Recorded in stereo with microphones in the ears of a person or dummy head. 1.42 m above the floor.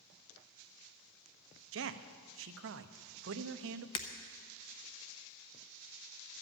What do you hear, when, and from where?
1.7 s a man speaking: 60° right (ahead or behind), 0.6 m
4.0 s breaking glass: 25° left (ahead or behind), 0.6 m